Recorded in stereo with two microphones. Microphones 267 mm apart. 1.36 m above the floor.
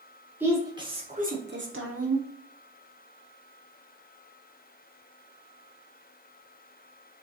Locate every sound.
0.4 s a woman speaking: 10° right (ahead or behind), 1.4 m; by 2.3 s 70° right (ahead or behind), 1.1 m